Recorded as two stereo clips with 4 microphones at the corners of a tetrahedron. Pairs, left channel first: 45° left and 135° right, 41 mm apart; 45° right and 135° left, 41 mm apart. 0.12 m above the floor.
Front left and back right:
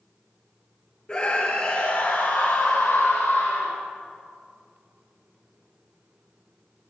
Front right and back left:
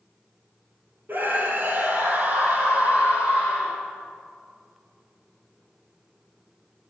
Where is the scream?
105° left, 2 m; by 3.8 s 75° left, 4 m.